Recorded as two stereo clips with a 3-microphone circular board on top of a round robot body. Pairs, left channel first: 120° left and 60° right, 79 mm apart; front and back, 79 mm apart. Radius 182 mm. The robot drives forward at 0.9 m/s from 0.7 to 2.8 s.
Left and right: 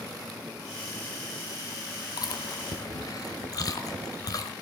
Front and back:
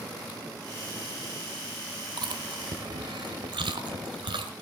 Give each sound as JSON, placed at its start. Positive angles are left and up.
{"t": 2.2, "sound": "chewing", "azimuth_deg": 155, "distance_m": 1.1}